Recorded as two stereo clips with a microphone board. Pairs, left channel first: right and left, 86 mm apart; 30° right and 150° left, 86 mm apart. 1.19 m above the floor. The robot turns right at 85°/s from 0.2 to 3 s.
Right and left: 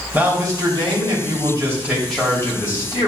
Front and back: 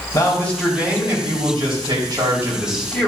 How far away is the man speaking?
About 3 m.